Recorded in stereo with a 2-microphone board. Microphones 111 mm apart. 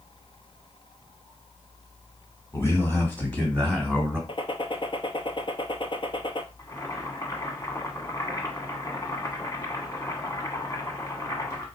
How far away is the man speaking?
About 1.4 m.